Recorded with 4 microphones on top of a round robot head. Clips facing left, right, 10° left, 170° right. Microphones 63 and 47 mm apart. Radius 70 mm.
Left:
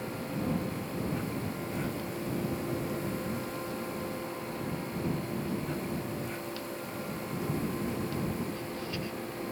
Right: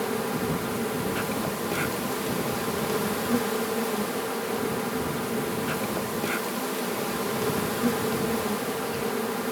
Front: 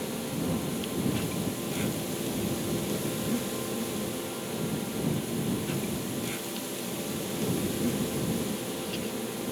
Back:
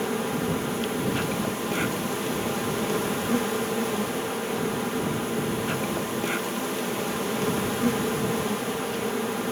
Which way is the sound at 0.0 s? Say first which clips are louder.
Right 7 dB, back 6 dB; 115° right.